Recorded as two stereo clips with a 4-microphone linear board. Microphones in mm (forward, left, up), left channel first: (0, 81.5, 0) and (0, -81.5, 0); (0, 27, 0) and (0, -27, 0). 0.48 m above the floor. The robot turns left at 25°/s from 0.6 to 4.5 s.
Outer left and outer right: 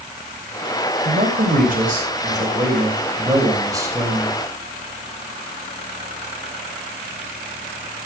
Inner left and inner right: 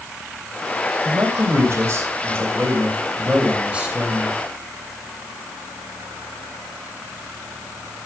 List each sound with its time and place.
1.1 s a man speaking: 85° right, 2.5 m; by 4.4 s 170° right, 2.5 m